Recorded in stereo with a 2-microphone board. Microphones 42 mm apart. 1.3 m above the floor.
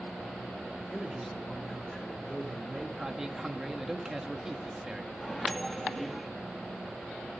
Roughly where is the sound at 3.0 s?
Centre.